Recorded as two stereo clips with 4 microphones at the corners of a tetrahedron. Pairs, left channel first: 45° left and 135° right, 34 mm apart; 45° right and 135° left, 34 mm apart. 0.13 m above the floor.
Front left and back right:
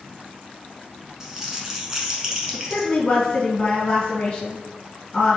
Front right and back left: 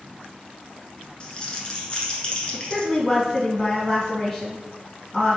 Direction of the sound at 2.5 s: 30° left.